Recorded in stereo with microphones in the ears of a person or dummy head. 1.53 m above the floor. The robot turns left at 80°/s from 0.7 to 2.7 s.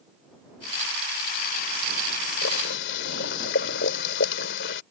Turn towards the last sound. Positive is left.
turn(degrees=75)  # may be behind; listen again after turning